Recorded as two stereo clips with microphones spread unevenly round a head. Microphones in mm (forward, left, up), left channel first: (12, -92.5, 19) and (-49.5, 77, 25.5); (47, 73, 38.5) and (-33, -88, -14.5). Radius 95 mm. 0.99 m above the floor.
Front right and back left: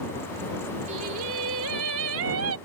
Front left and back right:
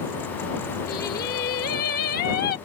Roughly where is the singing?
Left.